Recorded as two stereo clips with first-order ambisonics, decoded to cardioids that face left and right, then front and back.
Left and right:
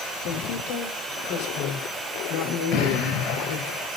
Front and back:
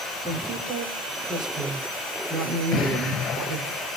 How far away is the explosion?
About 4 m.